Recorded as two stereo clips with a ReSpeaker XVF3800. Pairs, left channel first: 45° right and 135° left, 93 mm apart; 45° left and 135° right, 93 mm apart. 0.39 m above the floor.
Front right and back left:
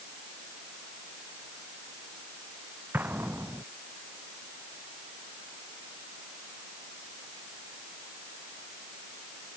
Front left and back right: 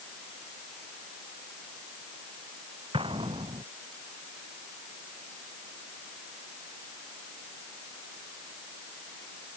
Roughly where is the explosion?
Behind right.